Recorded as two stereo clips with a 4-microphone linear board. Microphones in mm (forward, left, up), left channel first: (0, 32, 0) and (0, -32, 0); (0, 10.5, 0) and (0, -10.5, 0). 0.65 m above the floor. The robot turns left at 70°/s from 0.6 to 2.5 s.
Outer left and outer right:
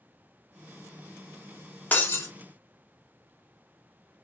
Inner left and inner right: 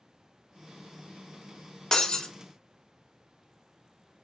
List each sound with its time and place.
1.9 s breaking glass: 25° left (ahead or behind), 0.6 m; by 2.3 s 50° left (ahead or behind), 0.6 m